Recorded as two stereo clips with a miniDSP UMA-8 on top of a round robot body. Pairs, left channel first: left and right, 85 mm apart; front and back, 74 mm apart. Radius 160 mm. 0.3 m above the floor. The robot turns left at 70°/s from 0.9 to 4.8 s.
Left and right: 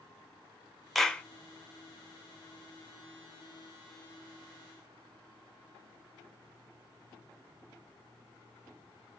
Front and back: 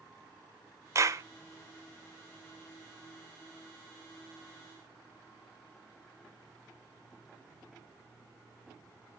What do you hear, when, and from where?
0.9 s a clap: straight behind, 1.2 m; by 1.2 s 155° left, 1.2 m